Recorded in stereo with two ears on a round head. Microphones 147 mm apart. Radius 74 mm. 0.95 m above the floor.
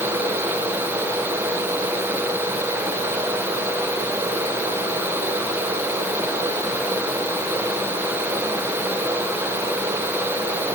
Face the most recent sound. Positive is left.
No sound to turn to.